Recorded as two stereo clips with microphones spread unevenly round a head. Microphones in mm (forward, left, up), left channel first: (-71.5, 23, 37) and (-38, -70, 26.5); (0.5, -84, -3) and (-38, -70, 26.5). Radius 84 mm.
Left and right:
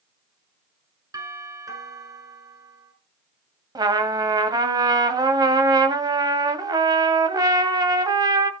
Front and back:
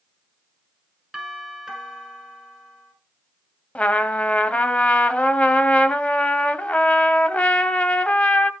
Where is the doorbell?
125° right, 7 m.